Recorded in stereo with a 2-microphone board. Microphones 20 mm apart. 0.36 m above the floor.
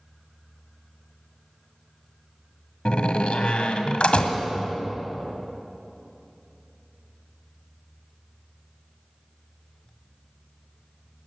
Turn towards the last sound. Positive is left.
turn(degrees=60)  # may be behind; listen again after turning